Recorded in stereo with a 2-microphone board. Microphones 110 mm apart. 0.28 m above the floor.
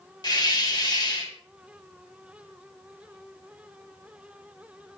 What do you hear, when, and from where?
0.2 s a hiss: 40° left (ahead or behind), 1.4 m